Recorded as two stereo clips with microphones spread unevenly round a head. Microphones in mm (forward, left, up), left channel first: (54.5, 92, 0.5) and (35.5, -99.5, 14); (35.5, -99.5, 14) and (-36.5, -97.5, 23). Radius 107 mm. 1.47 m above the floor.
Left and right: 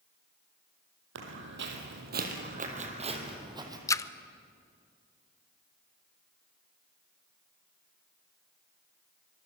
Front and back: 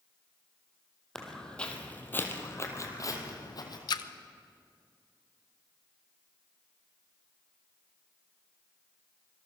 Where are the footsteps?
90° right, 3.5 m; by 3.8 s 25° right, 4 m.